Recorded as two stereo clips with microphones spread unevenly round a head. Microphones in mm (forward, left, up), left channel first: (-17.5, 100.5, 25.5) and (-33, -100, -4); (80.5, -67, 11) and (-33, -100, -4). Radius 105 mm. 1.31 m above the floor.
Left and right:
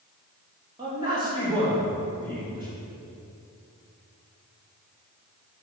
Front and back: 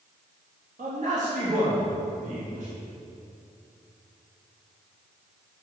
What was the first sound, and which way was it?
A man speaking, 165° right.